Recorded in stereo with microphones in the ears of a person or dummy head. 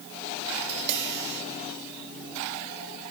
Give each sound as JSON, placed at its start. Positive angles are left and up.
{"t": 0.6, "sound": "tapping", "side_deg": -60}